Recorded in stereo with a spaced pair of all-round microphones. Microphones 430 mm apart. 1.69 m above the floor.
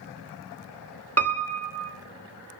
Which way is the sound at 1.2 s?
35° right (ahead or behind).